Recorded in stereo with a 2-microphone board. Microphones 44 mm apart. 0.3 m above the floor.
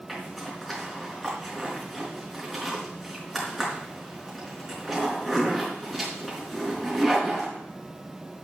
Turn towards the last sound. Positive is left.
turn(degrees=-5)  # may be behind; listen again after turning